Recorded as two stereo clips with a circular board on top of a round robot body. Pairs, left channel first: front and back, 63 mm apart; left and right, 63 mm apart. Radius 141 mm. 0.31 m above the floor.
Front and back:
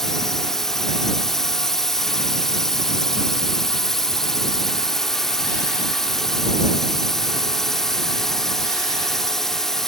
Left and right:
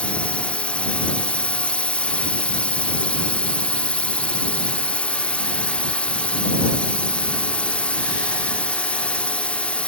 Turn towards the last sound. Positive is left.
turn(degrees=70)